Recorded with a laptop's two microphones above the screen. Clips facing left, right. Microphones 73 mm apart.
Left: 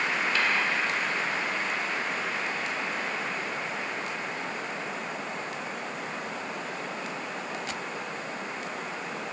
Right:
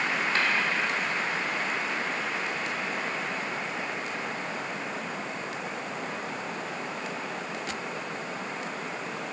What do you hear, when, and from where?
0.3 s tapping: 40° right (ahead or behind), 1.3 m